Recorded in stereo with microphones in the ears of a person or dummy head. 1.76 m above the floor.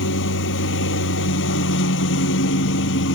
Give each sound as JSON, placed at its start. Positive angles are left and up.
{"t": 0.0, "sound": "a lawn mower", "side_deg": 75}